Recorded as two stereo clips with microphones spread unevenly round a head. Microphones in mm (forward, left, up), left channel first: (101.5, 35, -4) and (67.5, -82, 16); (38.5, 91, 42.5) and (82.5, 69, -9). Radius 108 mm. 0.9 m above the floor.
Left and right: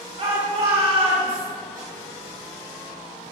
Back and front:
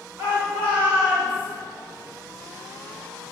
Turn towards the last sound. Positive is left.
turn(degrees=-65)